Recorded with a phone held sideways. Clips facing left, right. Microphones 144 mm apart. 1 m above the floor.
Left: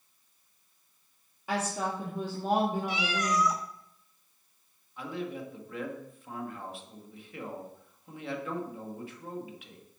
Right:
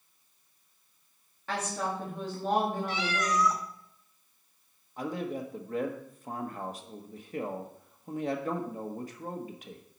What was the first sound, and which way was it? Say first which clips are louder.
A woman speaking: left 1 dB; 10° left (ahead or behind).